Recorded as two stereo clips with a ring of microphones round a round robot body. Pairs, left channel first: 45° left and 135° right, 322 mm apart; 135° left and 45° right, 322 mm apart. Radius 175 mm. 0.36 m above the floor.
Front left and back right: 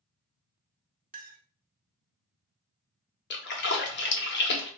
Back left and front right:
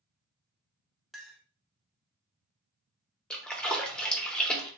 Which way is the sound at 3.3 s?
50° left.